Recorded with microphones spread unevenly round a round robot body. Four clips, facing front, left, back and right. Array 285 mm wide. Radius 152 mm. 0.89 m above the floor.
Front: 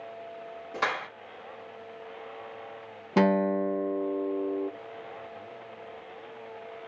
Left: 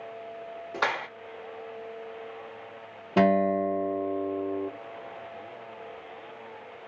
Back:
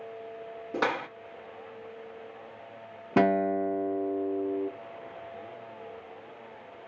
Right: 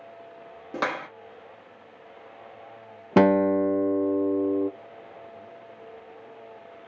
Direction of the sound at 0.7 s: 115° right.